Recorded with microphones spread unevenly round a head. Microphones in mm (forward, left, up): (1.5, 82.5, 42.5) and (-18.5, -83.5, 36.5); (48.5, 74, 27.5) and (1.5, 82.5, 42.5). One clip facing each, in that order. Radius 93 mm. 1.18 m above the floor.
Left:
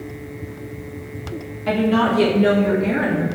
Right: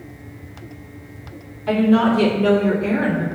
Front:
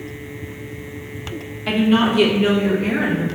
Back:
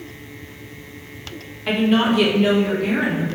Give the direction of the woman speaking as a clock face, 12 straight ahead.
9 o'clock.